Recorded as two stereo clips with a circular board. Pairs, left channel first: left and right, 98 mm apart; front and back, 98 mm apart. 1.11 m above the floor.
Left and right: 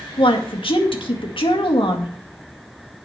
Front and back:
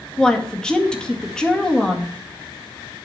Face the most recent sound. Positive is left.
turn(degrees=80)